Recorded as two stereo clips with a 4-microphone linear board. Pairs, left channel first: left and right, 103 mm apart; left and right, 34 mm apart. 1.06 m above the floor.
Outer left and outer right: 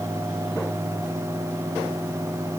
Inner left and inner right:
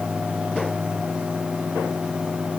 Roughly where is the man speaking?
I don't hear a man speaking.